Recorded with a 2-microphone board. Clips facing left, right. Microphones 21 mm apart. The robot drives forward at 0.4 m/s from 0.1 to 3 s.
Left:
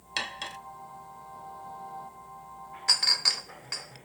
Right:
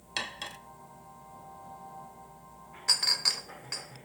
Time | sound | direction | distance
0.2 | cutlery clinking | 10° left (ahead or behind) | 0.6 m
2.9 | a clink | 10° left (ahead or behind) | 0.6 m